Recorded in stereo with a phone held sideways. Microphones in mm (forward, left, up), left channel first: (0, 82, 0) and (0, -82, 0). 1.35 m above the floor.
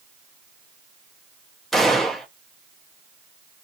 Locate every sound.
1.7 s a gunshot: centre (ahead or behind), 0.7 m